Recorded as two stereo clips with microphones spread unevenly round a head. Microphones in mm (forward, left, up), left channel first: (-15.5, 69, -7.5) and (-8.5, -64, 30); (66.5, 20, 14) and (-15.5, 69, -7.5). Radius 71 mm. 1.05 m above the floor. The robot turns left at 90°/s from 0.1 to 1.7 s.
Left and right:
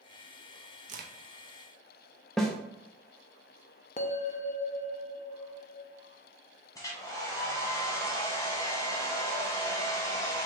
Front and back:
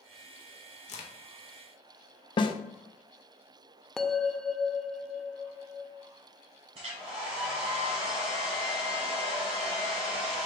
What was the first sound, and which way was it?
A crack, 45° right.